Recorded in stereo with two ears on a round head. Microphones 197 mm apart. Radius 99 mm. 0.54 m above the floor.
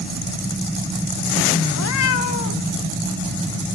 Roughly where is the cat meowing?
Left.